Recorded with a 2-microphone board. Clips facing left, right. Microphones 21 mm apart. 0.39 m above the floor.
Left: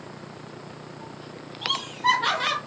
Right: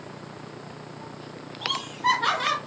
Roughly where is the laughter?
Centre.